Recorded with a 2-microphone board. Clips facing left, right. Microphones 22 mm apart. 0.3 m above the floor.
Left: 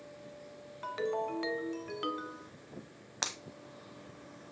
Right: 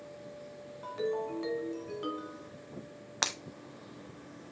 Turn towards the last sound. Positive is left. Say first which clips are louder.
# right 4 dB
turn(degrees=-25)  # may be behind; listen again after turning